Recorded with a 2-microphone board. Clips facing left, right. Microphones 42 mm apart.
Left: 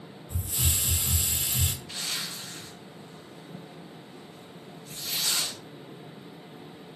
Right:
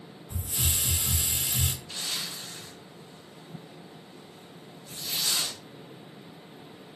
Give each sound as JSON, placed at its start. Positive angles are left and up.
{"t": 0.3, "sound": "a hiss", "side_deg": -15, "distance_m": 1.2}
{"t": 1.9, "sound": "a zipper", "side_deg": 65, "distance_m": 2.5}